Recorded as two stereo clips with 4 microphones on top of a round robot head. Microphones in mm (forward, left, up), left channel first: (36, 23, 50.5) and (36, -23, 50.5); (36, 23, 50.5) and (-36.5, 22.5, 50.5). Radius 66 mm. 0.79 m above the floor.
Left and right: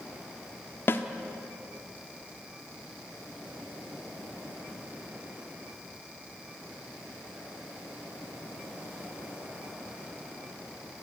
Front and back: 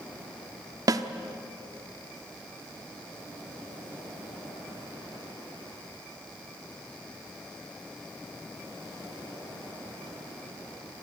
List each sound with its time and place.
0.9 s a snare drum: 140° left, 1.0 m